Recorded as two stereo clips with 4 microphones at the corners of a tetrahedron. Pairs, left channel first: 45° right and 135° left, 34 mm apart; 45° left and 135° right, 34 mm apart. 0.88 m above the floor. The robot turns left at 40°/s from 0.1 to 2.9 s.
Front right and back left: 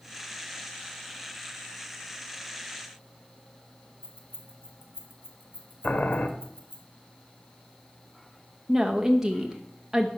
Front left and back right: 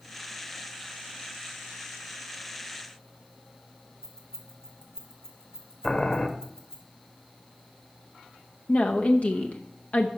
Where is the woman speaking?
65° left, 0.7 m.